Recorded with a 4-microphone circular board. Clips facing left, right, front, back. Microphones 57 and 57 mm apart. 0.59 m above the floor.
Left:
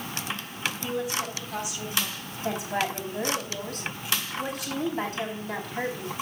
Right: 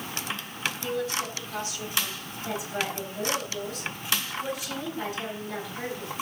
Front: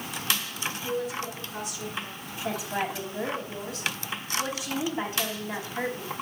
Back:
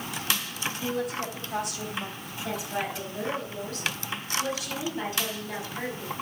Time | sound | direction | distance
0.8 | a woman speaking | 160° left | 3 m
2.4 | a woman speaking | 65° left | 4.5 m